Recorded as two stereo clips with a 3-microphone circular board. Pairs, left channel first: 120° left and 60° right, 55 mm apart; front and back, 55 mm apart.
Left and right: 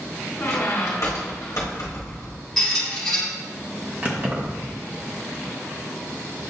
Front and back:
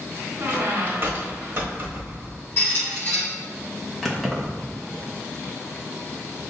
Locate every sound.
0.4 s a squeak: 135° left, 1.3 m
2.6 s a squeak: 40° left, 1.7 m
4.0 s keys jangling: 85° right, 1.0 m